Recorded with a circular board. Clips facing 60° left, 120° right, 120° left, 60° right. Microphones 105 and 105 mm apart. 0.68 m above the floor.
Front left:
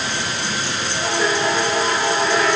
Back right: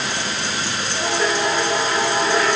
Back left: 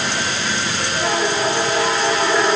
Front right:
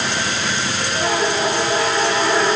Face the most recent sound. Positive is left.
No sound to turn to.